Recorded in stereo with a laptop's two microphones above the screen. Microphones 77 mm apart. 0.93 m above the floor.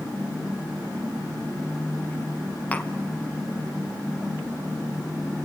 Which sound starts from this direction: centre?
Tapping, at 2.7 s.